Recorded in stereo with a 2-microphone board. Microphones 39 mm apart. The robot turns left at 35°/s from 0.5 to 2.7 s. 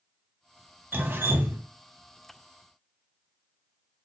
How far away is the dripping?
About 0.8 m.